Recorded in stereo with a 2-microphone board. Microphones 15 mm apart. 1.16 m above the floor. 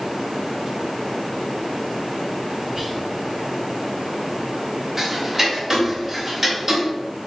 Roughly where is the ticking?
Right.